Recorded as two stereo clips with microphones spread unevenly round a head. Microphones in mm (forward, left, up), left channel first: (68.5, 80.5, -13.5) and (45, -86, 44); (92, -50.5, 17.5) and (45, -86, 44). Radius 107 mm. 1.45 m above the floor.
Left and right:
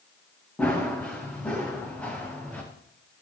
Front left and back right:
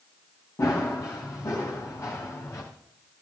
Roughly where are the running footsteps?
Ahead.